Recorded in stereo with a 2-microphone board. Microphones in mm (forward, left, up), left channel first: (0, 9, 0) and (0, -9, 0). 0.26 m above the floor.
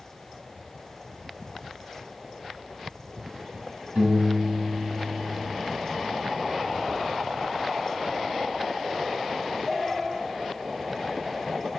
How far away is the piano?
About 1.2 m.